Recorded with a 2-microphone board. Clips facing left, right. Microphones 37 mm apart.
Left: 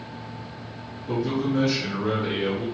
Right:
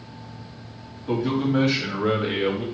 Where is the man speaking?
45° right (ahead or behind), 2.5 m; by 2.6 s 40° right (ahead or behind), 1.8 m.